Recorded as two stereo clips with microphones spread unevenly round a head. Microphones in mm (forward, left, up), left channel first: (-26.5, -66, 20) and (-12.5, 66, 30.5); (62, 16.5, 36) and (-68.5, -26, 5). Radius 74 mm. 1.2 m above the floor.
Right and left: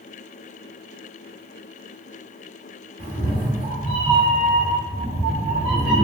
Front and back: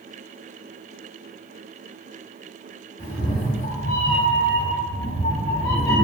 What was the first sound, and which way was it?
A cat meowing, 20° left.